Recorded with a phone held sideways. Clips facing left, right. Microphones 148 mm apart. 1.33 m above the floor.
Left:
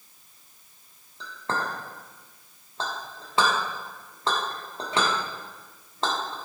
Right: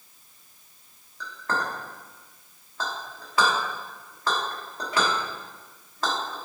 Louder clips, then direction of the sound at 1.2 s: Right 1 dB; 25° left (ahead or behind).